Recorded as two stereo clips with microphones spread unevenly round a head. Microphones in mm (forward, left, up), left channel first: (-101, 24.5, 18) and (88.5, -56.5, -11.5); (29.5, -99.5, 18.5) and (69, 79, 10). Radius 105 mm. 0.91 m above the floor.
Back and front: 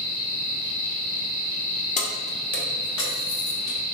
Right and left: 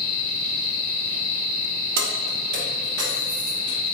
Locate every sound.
2.0 s keys jangling: 95° left, 0.7 m; by 3.8 s 135° left, 1.4 m